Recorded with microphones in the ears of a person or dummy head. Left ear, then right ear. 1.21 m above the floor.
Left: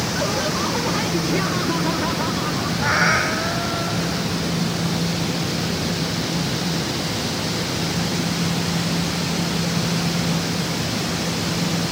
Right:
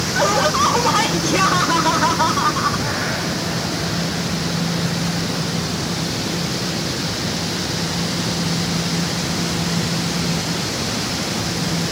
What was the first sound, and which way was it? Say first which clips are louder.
Laughter: right 9 dB; 45° right (ahead or behind).